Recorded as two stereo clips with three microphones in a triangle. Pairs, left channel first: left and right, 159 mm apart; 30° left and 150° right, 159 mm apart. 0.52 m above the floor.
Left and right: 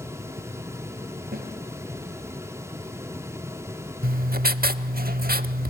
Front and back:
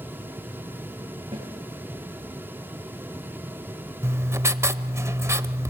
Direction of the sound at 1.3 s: 90° right.